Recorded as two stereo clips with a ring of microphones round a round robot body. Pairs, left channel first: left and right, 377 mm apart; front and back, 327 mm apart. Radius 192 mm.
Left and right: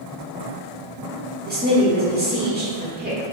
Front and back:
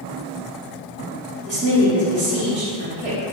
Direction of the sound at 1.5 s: 145° right.